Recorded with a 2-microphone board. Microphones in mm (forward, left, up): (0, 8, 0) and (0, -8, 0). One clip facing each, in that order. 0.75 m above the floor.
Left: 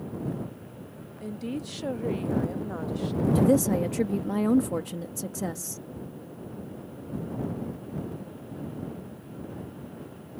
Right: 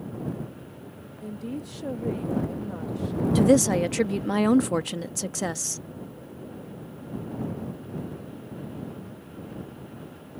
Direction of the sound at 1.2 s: 20° left (ahead or behind).